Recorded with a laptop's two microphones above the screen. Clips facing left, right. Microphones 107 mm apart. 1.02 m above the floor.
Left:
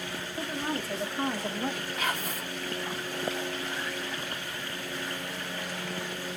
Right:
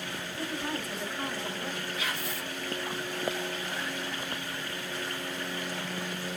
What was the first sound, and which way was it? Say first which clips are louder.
A woman speaking: left 2 dB; 25° left (ahead or behind).